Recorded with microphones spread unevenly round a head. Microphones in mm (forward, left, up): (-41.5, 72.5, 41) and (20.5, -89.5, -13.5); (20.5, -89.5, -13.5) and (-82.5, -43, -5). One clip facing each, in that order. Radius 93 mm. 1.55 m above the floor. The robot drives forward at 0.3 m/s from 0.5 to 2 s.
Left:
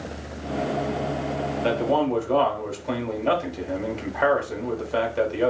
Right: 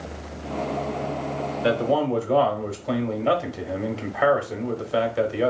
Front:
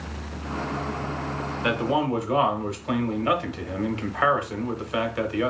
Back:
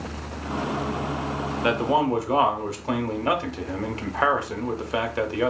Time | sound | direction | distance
1.6 | a man speaking | 145° right | 0.9 m